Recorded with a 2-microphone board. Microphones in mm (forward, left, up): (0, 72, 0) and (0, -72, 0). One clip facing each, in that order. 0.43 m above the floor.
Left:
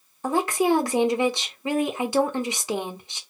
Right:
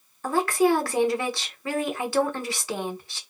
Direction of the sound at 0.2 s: 20° left (ahead or behind).